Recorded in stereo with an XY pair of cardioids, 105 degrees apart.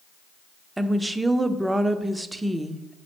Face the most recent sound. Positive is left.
turn(degrees=-15)